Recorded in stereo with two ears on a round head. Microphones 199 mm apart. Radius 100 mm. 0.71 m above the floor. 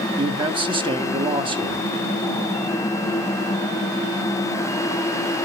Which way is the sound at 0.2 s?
25° right (ahead or behind).